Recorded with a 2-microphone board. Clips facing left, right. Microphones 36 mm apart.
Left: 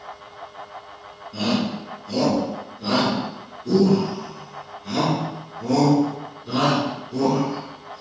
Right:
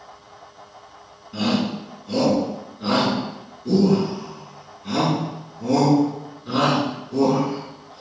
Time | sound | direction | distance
1.3 | a shout | 30° right (ahead or behind) | 3.5 m